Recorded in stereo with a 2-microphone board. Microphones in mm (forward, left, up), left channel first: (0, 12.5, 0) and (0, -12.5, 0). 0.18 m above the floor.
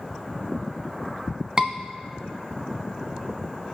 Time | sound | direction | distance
1.6 | a scream | 30° right (ahead or behind) | 1.4 m